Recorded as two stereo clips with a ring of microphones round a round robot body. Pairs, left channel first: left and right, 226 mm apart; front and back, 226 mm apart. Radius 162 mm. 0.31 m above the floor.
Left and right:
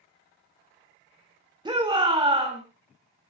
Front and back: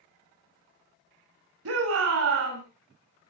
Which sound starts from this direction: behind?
A shout, at 1.6 s.